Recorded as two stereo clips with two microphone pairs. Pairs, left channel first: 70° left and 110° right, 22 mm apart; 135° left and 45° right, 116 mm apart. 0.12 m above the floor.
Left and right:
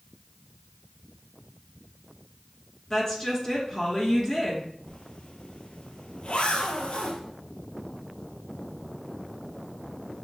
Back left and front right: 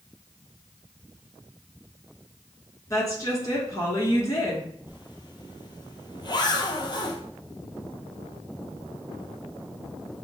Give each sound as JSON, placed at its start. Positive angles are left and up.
{"t": 2.9, "sound": "a woman speaking", "azimuth_deg": 110, "distance_m": 1.6}
{"t": 4.9, "sound": "a zipper", "azimuth_deg": 90, "distance_m": 0.7}